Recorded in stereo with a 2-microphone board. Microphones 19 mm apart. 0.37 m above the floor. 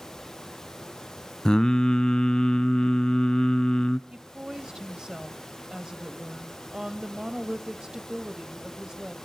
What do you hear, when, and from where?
1.4 s singing: 45° left (ahead or behind), 0.7 m
4.1 s a woman speaking: 35° right (ahead or behind), 1.5 m